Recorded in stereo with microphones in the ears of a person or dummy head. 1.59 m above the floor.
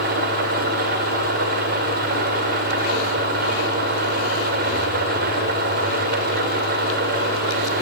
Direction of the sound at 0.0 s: 45° right (ahead or behind).